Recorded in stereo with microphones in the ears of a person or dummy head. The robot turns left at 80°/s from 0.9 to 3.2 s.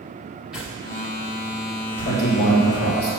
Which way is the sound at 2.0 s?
160° left.